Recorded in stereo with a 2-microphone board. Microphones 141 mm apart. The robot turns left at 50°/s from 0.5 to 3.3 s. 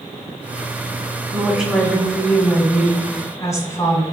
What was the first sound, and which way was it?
A woman speaking, 10° right (ahead or behind).